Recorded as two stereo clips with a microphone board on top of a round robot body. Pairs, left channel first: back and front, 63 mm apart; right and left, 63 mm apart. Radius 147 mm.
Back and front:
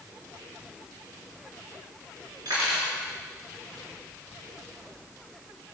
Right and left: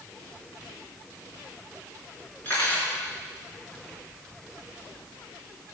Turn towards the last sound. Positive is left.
turn(degrees=-25)